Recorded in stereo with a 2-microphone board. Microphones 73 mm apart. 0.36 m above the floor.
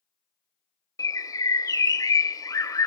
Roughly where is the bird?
Left.